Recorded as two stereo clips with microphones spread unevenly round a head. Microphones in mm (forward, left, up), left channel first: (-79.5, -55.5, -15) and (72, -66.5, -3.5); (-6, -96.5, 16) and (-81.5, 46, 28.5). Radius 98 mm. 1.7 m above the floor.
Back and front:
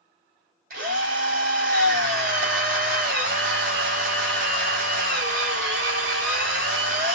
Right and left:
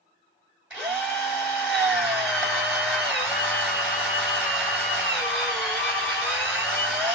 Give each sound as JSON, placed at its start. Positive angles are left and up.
{"t": 0.7, "sound": "a drill", "azimuth_deg": 35, "distance_m": 3.5}